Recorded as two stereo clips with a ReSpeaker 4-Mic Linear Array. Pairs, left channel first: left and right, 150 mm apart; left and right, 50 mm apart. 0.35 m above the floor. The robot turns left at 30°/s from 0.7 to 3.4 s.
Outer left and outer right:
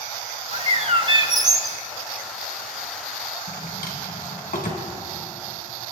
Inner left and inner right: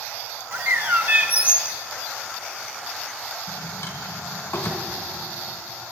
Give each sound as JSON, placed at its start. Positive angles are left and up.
{"t": 0.5, "sound": "a bird", "azimuth_deg": -125, "distance_m": 0.6}
{"t": 3.5, "sound": "a drawer", "side_deg": 70, "distance_m": 1.9}